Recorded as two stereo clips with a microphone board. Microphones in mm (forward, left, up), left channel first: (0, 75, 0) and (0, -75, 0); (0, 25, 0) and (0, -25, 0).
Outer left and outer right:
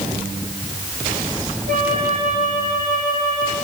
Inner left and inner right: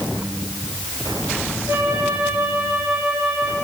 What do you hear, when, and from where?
1.7 s a flute: 65° right (ahead or behind), 5.5 m